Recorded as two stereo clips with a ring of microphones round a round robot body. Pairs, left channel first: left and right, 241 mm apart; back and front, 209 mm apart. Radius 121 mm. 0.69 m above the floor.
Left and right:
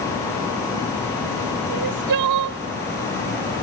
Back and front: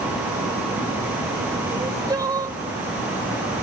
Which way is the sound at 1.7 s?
75° right.